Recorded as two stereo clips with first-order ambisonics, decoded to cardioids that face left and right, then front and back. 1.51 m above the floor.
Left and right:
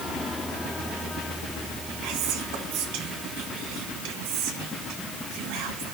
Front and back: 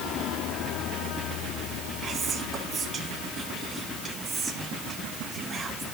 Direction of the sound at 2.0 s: 105° right.